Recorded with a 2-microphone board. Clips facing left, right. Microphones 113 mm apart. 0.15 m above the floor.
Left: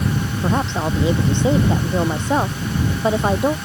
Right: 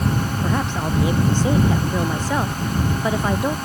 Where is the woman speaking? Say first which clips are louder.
Left 5 dB; 25° left (ahead or behind).